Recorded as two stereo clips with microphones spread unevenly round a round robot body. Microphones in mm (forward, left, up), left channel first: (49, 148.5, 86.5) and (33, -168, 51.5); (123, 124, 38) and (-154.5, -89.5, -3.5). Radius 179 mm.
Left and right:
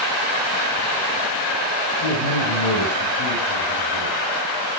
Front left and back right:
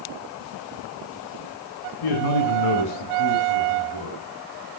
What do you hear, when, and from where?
2.0 s a man speaking: 65° left, 3.5 m; by 4.2 s 60° left, 5 m